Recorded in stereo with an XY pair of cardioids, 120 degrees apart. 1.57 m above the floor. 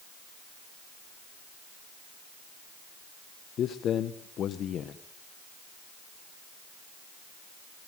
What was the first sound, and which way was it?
A man speaking, 55° left.